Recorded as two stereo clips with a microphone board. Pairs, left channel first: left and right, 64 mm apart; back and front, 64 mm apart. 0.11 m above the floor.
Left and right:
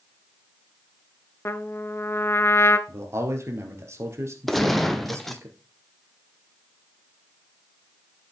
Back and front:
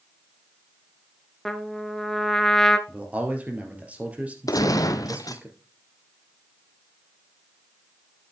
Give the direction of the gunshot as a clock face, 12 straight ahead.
6 o'clock.